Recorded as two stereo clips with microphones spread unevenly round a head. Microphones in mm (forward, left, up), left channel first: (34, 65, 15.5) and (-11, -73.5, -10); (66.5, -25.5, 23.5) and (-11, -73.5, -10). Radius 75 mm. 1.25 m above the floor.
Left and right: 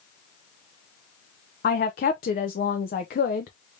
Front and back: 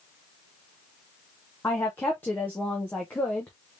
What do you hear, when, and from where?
1.6 s a woman speaking: 110° left, 0.5 m